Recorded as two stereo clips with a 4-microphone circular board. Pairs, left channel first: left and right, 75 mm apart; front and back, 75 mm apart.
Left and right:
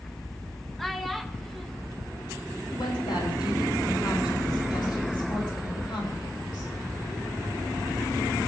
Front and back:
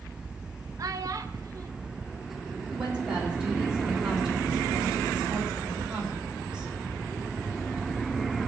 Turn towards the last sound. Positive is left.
turn(degrees=100)